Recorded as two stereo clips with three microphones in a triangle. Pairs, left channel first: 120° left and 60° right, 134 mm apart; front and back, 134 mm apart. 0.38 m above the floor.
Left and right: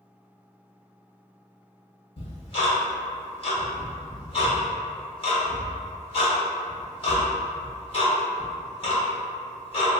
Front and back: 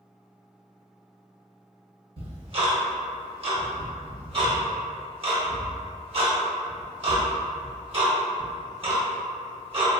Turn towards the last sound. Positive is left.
turn(degrees=150)